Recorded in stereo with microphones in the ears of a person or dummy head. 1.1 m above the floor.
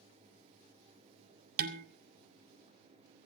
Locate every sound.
1.6 s dishes clattering: 55° right (ahead or behind), 1.8 m